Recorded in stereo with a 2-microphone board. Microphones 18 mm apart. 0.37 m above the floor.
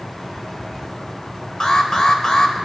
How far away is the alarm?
About 1.1 m.